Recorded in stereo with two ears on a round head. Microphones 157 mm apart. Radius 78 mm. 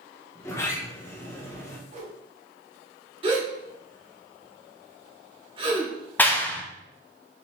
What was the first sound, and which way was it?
A sliding door, 15° left (ahead or behind).